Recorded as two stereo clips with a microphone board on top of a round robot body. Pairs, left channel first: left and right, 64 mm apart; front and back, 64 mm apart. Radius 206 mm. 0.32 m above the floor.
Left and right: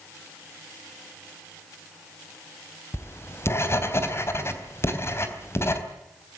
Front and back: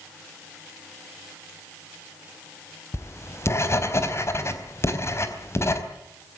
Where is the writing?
45° left, 4 m.